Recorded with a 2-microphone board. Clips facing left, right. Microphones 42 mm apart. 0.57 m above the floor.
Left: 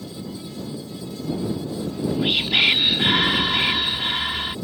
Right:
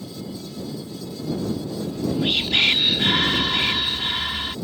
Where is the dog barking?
No dog barking in this recording.